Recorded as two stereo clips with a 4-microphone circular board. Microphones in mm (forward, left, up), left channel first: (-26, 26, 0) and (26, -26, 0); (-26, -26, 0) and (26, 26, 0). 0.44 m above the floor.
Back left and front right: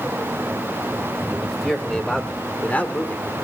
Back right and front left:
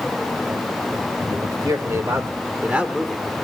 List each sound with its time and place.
1.3 s a man speaking: 50° left, 3 m; by 3.3 s 155° left, 1.6 m